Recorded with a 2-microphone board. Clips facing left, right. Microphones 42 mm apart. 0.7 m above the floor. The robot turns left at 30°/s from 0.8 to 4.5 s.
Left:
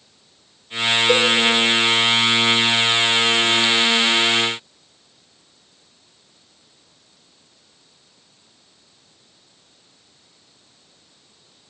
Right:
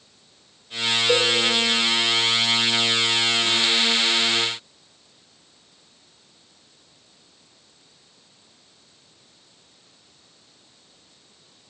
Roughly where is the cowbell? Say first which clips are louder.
Left 2 dB; centre.